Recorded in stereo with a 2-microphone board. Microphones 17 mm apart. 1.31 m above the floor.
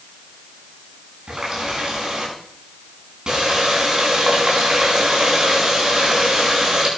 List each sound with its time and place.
1.3 s a running tap: 50° right (ahead or behind), 8 m